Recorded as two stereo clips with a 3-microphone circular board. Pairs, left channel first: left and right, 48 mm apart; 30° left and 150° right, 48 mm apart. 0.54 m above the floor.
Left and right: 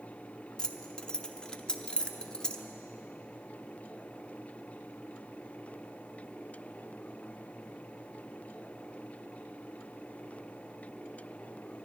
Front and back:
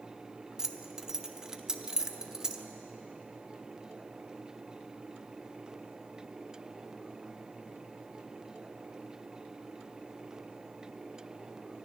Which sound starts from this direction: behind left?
Keys jangling, at 0.6 s.